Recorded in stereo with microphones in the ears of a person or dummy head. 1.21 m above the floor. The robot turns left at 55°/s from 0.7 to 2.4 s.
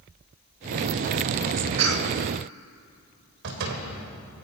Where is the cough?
80° right, 2.5 m; by 2.2 s 70° right (ahead or behind), 2.5 m.